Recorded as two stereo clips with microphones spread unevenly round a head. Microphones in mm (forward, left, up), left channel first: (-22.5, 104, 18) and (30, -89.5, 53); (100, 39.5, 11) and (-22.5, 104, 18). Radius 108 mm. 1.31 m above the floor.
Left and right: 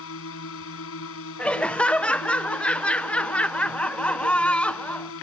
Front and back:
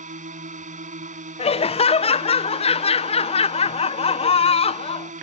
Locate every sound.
0.0 s a drone: 125° left
1.4 s laughter: 20° left